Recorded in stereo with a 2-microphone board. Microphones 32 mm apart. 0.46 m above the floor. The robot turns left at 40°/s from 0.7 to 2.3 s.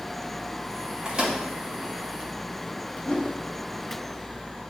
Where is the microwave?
25° right (ahead or behind), 1.7 m; by 1.4 s 35° right (ahead or behind), 1.7 m.